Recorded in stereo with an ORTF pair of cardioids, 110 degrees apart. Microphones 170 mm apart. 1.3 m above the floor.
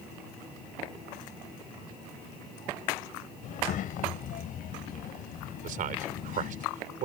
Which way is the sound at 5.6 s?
60° right.